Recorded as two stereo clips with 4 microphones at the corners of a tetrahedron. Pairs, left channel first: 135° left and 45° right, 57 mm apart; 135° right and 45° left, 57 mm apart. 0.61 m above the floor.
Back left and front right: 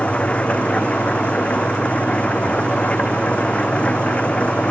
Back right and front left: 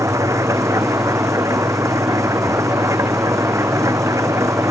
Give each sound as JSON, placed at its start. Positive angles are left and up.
{"t": 0.0, "sound": "an engine running", "azimuth_deg": 65}